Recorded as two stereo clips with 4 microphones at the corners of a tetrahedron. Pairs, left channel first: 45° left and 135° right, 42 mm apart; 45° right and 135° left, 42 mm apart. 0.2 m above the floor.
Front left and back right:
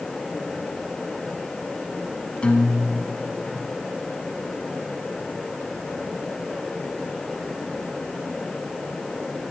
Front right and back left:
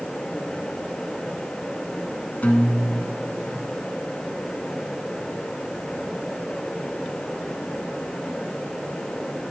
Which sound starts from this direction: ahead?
A guitar, at 2.4 s.